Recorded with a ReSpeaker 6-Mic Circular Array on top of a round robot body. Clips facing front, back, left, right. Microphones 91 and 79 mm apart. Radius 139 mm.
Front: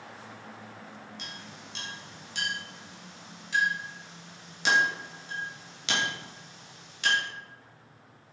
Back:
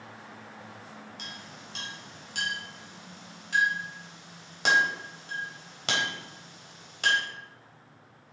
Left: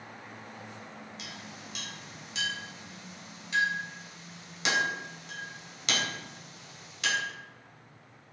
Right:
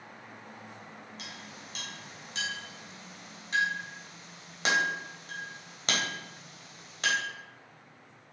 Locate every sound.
1.2 s a clink: 140° right, 3.5 m